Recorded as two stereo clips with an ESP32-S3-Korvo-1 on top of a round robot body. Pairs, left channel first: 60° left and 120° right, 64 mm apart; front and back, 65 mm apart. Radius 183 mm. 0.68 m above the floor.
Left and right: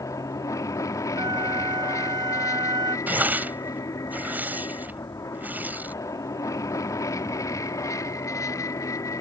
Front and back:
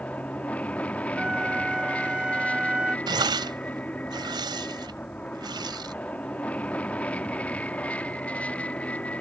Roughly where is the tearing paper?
Behind.